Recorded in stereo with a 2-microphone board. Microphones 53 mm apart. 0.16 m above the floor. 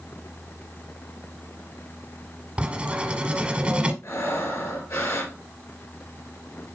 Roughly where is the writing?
Centre.